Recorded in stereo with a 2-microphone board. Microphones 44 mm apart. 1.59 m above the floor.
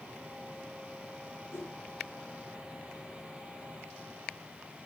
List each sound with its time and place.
1.5 s a whoosh: 90° left, 2 m